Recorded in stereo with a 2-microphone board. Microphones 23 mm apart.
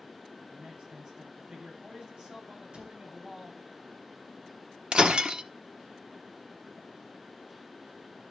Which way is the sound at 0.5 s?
35° right (ahead or behind).